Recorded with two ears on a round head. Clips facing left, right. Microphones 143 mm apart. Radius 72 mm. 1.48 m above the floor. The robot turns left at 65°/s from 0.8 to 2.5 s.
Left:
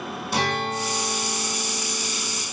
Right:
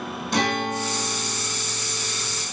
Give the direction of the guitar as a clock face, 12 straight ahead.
6 o'clock.